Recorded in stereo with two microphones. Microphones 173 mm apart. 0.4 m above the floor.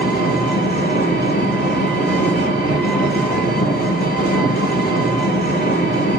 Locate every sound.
0.0 s an engine running: 65° left (ahead or behind), 7.5 m